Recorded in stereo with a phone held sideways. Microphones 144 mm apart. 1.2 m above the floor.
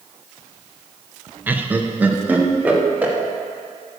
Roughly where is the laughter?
Centre.